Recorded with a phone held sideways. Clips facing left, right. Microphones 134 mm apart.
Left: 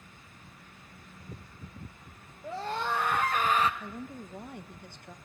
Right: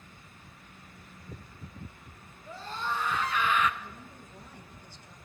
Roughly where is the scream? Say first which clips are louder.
Left 4 dB; left.